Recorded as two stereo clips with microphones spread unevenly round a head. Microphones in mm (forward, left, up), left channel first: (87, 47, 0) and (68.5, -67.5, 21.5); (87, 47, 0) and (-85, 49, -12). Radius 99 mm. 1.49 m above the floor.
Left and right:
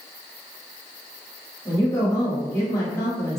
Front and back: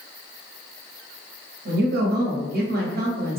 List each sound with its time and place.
1.6 s a woman speaking: 150° left, 0.9 m